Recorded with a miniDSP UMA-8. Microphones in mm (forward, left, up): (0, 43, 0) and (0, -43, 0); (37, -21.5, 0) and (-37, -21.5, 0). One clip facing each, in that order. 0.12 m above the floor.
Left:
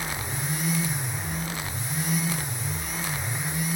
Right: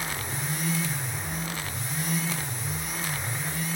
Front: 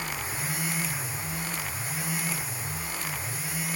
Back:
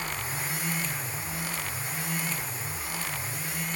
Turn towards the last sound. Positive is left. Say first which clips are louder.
# left 1 dB, even
turn(degrees=-80)